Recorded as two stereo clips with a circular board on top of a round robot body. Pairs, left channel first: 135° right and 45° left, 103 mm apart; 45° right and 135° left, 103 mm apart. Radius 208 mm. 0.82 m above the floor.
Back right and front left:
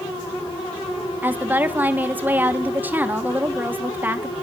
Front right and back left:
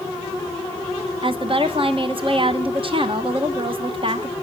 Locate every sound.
1.2 s a woman speaking: 115° left, 1.2 m